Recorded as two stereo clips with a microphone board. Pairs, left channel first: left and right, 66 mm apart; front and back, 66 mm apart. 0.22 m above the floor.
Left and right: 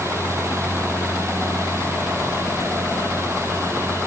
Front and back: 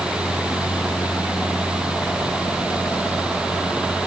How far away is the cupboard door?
I don't hear a cupboard door.